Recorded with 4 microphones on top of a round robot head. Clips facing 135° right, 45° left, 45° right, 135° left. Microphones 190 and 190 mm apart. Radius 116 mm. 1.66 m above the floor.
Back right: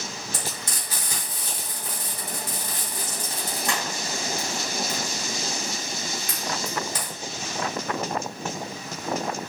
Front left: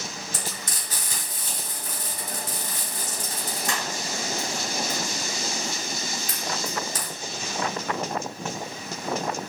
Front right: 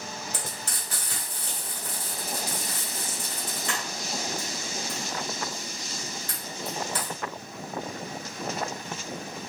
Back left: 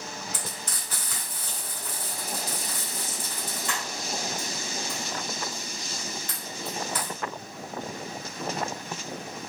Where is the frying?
100° right, 2.0 m.